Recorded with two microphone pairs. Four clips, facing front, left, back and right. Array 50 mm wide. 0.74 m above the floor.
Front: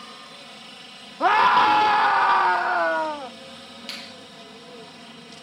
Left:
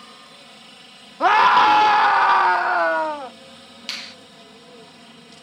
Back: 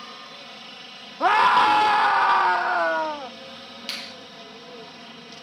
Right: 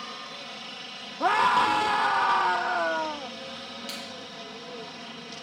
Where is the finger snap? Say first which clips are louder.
Left 4 dB, back 3 dB; 105° left.